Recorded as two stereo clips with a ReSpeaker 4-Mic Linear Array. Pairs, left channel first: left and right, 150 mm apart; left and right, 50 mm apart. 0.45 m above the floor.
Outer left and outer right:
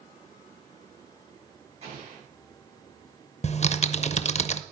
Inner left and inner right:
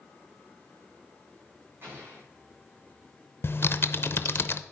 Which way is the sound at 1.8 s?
45° right (ahead or behind).